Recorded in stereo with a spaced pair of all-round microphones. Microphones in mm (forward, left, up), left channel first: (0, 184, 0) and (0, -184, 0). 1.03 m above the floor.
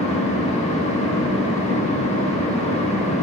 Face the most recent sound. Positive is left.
turn(degrees=15)  # may be behind; listen again after turning